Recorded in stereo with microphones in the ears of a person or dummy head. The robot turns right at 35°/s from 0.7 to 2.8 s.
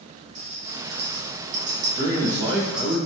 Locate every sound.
0.3 s a rattle: 65° right (ahead or behind), 1.4 m; by 3.0 s 5° right (ahead or behind), 1.4 m
1.9 s a man speaking: 55° right (ahead or behind), 1.6 m; by 3.0 s 25° right (ahead or behind), 1.6 m